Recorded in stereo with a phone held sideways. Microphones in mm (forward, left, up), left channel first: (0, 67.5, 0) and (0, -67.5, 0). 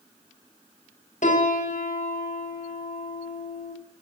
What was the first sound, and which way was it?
A piano, 70° left (ahead or behind).